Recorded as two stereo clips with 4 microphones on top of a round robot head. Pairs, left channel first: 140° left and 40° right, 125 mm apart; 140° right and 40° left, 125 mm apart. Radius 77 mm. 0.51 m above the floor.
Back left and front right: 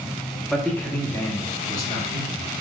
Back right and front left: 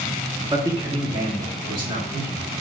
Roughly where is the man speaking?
Ahead left.